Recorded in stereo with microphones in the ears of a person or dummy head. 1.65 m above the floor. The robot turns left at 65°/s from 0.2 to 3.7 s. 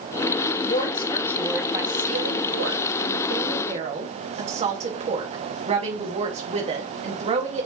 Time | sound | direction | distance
0.6 | a woman speaking | 55° left | 2.5 m